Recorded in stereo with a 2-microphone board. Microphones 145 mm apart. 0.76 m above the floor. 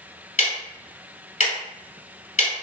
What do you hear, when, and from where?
0.4 s ticking: 50° left (ahead or behind), 1.5 m